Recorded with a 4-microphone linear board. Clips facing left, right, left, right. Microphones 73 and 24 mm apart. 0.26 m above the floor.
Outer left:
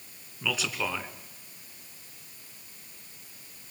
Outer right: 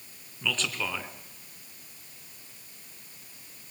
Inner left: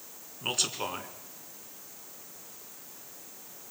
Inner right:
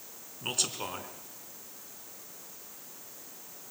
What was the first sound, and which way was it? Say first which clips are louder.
A man speaking: outer left 1 dB, inner left 2 dB; 10° left (ahead or behind).